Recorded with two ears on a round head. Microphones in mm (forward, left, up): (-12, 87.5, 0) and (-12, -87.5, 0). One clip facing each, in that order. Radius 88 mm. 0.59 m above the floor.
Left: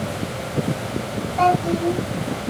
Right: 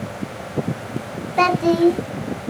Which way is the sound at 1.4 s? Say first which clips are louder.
Right 4 dB; 70° right (ahead or behind).